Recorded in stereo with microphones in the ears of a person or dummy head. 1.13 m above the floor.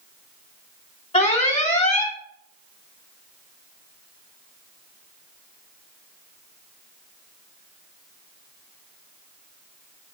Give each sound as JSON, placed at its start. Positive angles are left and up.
{"t": 1.1, "sound": "an alarm", "side_deg": 40, "distance_m": 1.6}